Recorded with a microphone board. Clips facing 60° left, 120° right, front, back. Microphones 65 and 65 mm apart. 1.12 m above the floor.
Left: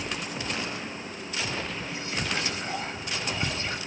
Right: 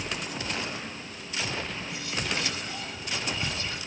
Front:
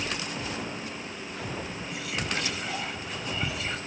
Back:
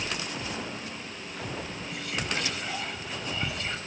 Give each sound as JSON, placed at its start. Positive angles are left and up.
{"t": 1.8, "sound": "whispering", "azimuth_deg": 85, "distance_m": 0.5}